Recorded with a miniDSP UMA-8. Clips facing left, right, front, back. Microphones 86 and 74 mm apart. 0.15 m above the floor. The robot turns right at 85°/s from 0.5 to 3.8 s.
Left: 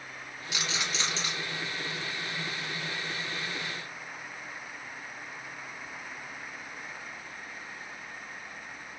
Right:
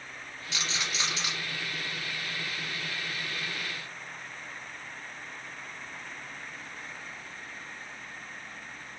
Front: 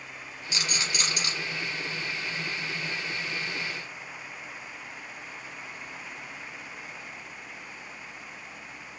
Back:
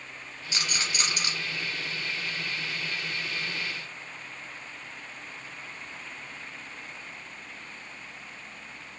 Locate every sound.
0.5 s a rattle: 150° left, 1.3 m; by 1.3 s 140° right, 1.3 m